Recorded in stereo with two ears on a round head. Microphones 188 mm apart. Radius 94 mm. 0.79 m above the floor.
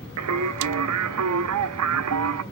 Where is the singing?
80° right, 0.5 m.